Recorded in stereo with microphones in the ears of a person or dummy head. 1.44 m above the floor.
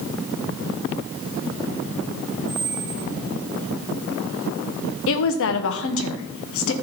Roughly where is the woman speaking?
Left.